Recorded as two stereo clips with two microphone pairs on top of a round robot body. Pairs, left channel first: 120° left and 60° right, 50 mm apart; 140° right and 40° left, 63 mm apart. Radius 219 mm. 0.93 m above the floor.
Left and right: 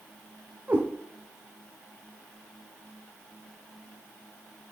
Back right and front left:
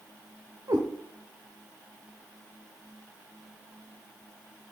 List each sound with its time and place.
0.7 s a cat meowing: 5° right, 1.0 m